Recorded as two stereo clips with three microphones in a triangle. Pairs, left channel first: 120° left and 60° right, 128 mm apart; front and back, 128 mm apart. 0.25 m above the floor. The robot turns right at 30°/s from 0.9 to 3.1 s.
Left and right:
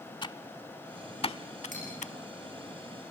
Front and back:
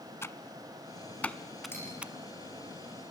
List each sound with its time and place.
0.2 s typing on a keyboard: 65° left, 0.6 m; by 2.1 s 105° left, 0.6 m
1.7 s cutlery clinking: 75° right, 9.5 m; by 1.9 s 70° right, 9.5 m